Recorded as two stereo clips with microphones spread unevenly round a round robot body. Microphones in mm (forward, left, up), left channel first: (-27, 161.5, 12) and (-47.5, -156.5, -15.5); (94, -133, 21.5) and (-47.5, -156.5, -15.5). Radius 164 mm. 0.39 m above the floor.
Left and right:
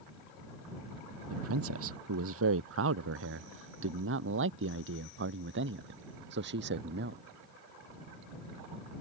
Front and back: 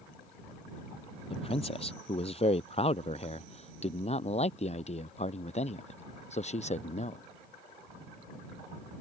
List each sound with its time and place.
1.3 s a man speaking: 40° right; by 7.2 s 30° right